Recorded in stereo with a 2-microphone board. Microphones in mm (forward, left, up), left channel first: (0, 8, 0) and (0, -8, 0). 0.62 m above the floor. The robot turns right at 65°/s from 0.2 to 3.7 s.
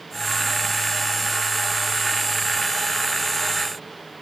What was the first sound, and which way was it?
Only background noise.